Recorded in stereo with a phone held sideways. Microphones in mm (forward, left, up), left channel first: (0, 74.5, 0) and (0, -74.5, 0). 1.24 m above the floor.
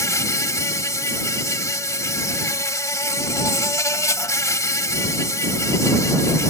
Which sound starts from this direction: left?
An insect, at 0.0 s.